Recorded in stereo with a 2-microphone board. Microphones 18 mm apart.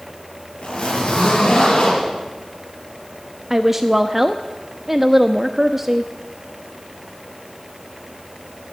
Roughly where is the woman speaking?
Centre.